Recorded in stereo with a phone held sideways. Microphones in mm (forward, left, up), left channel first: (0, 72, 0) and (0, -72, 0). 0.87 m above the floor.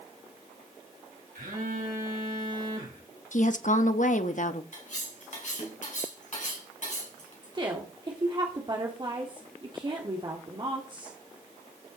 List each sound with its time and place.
1.4 s a phone buzzing: 80° right, 4 m
3.3 s a woman speaking: 60° left (ahead or behind), 1.0 m
4.7 s cutlery clinking: 60° left (ahead or behind), 4 m
7.4 s a woman speaking: 35° right (ahead or behind), 1.9 m